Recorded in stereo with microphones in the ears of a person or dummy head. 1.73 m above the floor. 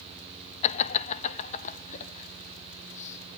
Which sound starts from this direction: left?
Laughter, at 0.6 s.